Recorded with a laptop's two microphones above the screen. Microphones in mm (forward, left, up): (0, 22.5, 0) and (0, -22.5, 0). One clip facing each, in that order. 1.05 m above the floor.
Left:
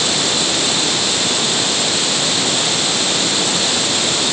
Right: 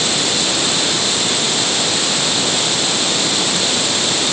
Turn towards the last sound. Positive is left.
No sound to turn to.